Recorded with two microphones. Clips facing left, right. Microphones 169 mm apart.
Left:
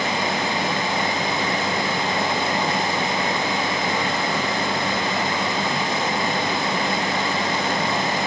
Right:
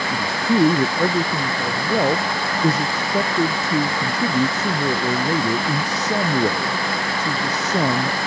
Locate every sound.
0.1 s a man speaking: 80° right